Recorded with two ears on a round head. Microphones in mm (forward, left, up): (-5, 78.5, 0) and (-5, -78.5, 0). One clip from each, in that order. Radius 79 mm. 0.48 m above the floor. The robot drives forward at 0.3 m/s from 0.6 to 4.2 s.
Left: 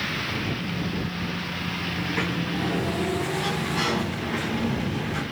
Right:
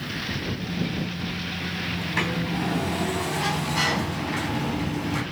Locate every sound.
2.0 s a sliding door: 40° right (ahead or behind), 4 m; by 5.2 s 35° right (ahead or behind), 4.5 m